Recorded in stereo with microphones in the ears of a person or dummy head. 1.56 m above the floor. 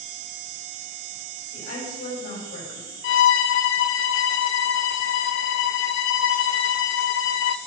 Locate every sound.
1.5 s a woman speaking: 55° left (ahead or behind), 5.5 m
3.0 s a violin: 60° left (ahead or behind), 0.5 m